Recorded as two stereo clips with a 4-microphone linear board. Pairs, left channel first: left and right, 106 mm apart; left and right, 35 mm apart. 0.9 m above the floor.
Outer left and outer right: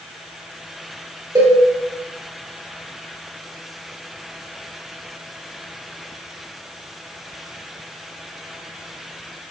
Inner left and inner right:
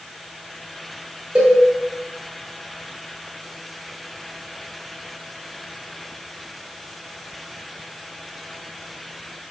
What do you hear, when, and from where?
1.4 s a cowbell: 40° right (ahead or behind), 1.9 m